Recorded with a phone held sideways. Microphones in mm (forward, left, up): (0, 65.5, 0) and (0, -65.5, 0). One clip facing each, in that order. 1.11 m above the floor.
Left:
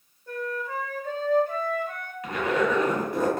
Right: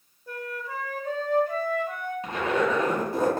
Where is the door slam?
No door slam in this recording.